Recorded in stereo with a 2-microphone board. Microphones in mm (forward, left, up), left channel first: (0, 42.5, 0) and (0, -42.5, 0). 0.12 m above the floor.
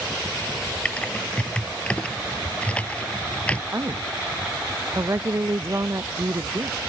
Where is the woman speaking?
35° right (ahead or behind).